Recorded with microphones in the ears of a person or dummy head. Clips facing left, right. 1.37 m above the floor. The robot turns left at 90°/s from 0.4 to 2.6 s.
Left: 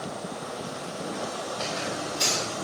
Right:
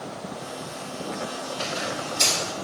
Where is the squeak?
10° right, 5 m; by 2.5 s 100° right, 5 m.